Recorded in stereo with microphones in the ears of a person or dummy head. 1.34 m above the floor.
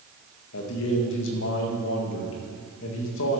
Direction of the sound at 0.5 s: 70° left (ahead or behind).